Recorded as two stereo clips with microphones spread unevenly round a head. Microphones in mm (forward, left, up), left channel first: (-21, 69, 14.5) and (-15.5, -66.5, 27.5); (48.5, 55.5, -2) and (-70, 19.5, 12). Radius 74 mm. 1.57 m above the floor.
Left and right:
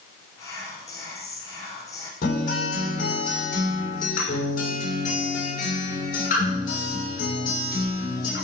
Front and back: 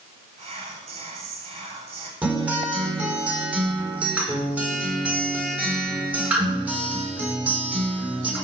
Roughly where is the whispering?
Behind left.